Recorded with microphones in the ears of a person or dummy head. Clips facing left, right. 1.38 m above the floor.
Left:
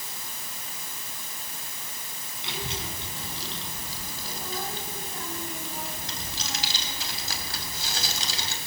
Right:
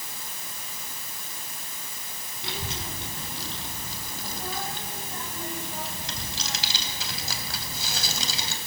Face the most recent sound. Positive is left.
turn(degrees=-80)